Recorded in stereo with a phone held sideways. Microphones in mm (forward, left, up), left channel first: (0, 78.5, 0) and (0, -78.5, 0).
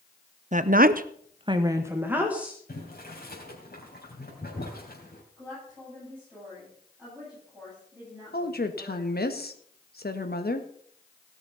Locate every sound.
0.5 s a woman speaking: 50° right (ahead or behind), 0.8 m; by 2.6 s 5° right (ahead or behind), 2.0 m
2.7 s boiling: 75° left (ahead or behind), 3 m
5.4 s a woman speaking: 10° right (ahead or behind), 9.5 m
8.3 s a woman speaking: 80° left, 1.3 m